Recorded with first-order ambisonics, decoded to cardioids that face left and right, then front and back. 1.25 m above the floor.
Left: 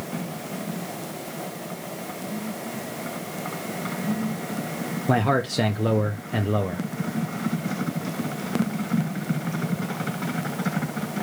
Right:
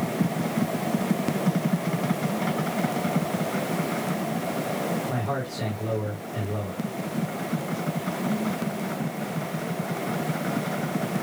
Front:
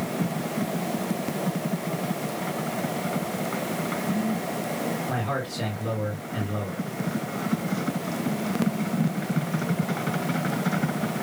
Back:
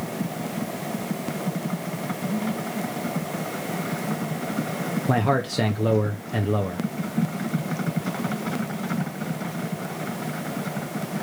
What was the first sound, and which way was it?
A man speaking, 130° left.